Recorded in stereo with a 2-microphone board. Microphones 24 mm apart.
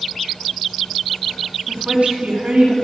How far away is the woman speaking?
About 2.5 m.